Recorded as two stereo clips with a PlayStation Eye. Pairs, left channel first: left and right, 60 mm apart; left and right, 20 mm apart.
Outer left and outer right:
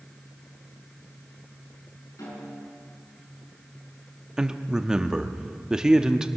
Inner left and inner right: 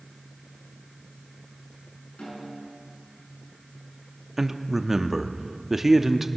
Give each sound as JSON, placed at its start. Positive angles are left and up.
{"t": 2.2, "sound": "a snare drum", "side_deg": 85, "distance_m": 8.0}
{"t": 4.4, "sound": "a man speaking", "side_deg": -10, "distance_m": 0.8}